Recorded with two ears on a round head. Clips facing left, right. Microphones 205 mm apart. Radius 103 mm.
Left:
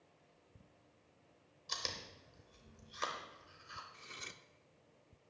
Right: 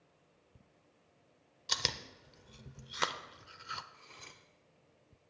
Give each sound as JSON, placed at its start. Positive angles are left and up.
{"t": 1.7, "sound": "chewing", "side_deg": -75, "distance_m": 0.7}
{"t": 3.9, "sound": "cutlery clinking", "side_deg": 25, "distance_m": 0.6}